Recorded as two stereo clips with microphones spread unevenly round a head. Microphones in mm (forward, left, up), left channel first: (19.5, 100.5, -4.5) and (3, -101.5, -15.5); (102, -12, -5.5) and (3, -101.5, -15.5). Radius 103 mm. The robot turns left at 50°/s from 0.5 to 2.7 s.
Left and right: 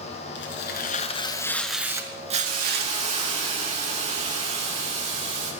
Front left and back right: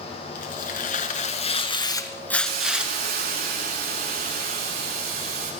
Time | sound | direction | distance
0.3 | tearing paper | 55° left | 5 m
2.5 | a hiss | 140° right | 8 m